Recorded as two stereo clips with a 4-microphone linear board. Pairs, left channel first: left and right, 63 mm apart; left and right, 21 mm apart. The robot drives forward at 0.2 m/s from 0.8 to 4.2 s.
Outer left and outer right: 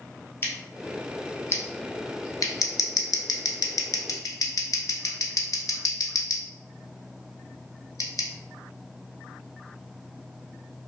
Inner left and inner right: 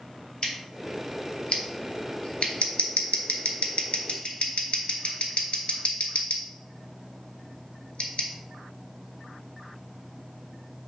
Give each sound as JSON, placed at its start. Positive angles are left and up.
{"t": 0.4, "sound": "scissors", "side_deg": 40, "distance_m": 0.7}